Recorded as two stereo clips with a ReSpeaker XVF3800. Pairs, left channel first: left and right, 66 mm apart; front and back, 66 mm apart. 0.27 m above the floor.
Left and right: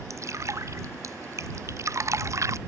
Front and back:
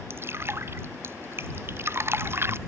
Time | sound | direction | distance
0.1 | dripping | 130° right | ?